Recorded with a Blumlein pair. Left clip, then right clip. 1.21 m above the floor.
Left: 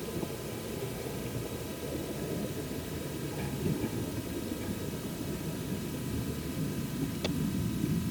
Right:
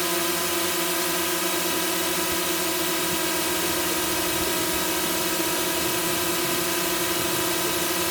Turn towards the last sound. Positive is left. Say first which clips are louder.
# right 13 dB
turn(degrees=-50)